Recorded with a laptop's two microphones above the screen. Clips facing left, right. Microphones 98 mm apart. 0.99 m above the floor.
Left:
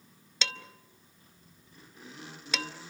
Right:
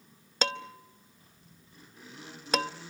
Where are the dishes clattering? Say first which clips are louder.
Right 7 dB; 45° right (ahead or behind), 0.8 m.